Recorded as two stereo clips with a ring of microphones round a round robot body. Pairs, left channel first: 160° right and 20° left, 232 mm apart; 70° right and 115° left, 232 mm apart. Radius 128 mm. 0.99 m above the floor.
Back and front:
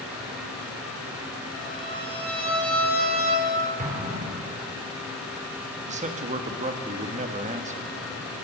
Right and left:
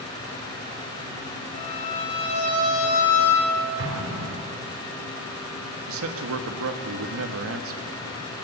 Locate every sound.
1.5 s a violin: 70° right, 5 m
3.8 s an explosion: 80° left, 3.5 m
5.9 s a man speaking: 85° left, 1.5 m